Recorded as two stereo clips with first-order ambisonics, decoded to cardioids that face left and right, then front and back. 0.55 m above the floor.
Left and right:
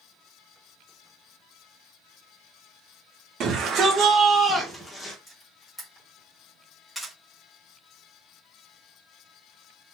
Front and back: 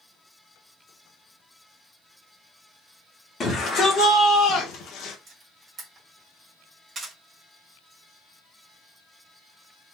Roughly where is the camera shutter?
Behind.